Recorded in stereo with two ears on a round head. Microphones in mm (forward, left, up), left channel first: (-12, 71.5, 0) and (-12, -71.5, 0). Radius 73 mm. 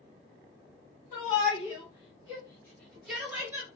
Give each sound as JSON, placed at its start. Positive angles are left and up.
{"t": 1.1, "sound": "a shout", "side_deg": 50, "distance_m": 1.8}